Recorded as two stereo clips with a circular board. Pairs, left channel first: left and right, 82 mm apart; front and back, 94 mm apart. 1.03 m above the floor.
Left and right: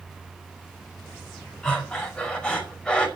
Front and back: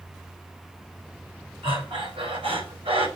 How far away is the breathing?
About 5 m.